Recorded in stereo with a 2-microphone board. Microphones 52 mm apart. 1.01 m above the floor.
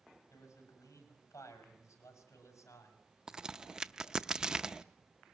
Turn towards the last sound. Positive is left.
turn(degrees=-15)  # may be behind; listen again after turning